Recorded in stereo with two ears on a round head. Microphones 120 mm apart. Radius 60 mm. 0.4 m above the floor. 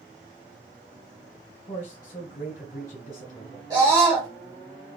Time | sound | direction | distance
1.7 | a man speaking | 55° left (ahead or behind) | 2 m
3.7 | a scream | 30° right (ahead or behind) | 1.2 m